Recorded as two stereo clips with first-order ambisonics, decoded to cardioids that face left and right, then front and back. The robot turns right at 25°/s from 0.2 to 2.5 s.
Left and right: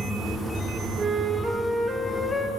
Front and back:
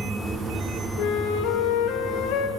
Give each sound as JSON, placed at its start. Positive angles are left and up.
{"t": 1.0, "sound": "a flute", "azimuth_deg": -20, "distance_m": 3.0}